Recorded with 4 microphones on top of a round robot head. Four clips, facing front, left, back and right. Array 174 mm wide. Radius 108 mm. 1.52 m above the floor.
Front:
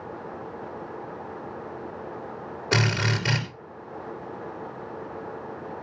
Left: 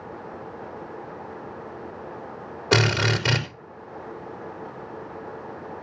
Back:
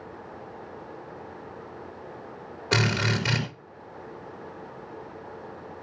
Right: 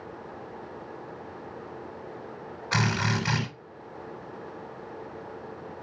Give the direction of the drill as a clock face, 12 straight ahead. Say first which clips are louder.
Left 6 dB, even; 9 o'clock.